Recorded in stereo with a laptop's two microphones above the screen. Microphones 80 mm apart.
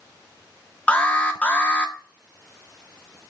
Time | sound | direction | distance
0.9 | an alarm | 20° left (ahead or behind) | 1.0 m